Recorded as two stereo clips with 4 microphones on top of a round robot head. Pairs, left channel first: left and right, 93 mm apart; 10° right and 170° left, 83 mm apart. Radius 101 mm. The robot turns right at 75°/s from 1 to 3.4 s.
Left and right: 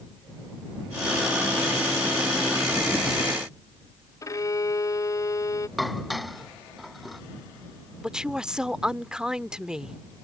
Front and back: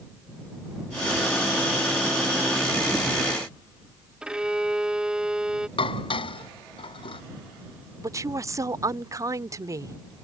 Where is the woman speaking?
170° right.